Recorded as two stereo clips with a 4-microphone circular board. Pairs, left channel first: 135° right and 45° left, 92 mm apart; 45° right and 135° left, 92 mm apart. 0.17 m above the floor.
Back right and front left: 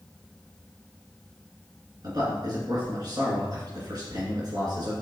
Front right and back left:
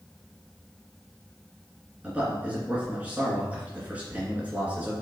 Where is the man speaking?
65° left, 2.5 m.